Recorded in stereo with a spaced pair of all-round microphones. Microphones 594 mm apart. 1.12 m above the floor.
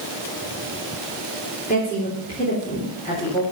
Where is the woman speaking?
15° left (ahead or behind), 3.5 m.